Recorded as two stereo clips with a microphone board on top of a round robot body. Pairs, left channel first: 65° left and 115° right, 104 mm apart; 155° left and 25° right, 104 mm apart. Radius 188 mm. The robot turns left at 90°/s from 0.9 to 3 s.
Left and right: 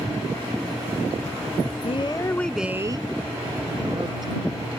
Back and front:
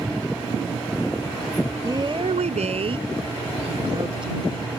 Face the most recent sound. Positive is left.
turn(degrees=-65)